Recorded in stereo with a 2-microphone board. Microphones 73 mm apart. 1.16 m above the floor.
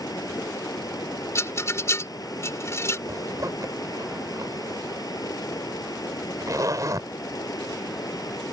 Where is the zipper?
55° right (ahead or behind).